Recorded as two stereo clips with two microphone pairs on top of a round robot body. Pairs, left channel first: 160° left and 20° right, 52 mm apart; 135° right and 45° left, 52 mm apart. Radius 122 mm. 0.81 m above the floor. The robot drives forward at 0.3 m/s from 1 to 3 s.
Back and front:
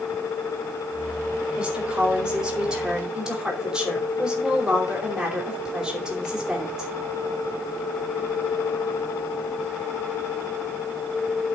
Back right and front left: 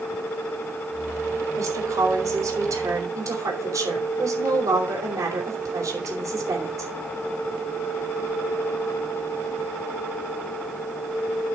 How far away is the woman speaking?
About 5 m.